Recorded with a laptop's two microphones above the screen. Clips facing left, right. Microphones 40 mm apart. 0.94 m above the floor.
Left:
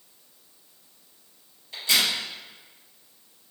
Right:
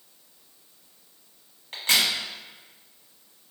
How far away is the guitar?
No guitar in this recording.